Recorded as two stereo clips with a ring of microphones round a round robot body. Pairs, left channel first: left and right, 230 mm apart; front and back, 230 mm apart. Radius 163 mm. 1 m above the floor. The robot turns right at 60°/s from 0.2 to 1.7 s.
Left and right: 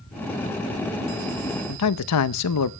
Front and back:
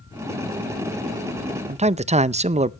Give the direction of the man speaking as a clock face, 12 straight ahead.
8 o'clock.